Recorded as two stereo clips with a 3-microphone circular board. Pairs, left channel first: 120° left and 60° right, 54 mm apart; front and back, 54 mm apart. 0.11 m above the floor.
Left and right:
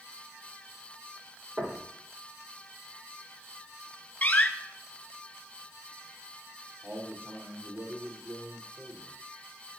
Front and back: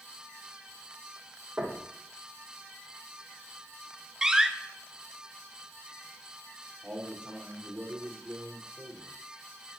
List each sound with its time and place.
1.6 s knocking: 115° right, 3.5 m
4.2 s a door slam: 110° left, 0.8 m
6.8 s a man speaking: 110° right, 6.5 m